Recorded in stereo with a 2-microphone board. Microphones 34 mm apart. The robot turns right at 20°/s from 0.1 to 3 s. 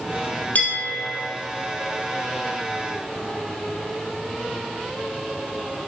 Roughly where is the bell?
Left.